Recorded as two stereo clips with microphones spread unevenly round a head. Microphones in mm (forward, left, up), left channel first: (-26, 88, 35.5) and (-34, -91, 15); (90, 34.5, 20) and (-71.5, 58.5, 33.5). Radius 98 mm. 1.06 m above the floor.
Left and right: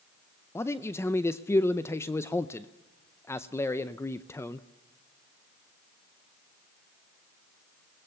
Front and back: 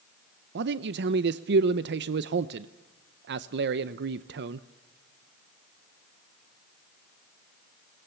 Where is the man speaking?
165° left, 0.6 m.